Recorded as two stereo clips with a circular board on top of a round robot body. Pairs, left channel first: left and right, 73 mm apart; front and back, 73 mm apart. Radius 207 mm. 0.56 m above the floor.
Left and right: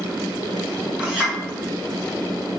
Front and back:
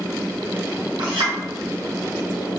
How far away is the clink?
About 2.0 m.